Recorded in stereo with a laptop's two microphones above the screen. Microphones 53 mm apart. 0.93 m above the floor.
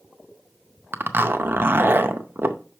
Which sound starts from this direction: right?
A zipper, at 0.9 s.